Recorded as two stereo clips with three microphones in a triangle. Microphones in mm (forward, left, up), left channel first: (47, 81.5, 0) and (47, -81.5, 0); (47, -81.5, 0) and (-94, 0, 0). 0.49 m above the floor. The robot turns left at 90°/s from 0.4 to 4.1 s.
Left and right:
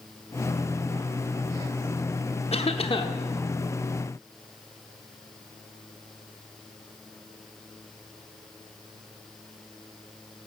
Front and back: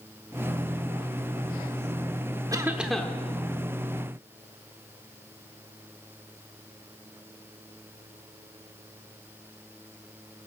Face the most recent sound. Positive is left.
turn(degrees=-45)